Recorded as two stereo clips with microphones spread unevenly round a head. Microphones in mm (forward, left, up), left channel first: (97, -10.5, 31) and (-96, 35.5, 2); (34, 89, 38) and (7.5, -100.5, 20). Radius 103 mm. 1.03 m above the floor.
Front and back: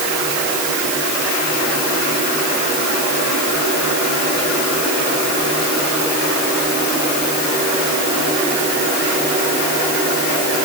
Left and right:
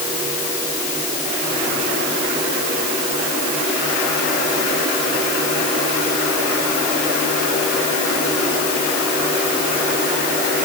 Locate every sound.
Only background noise.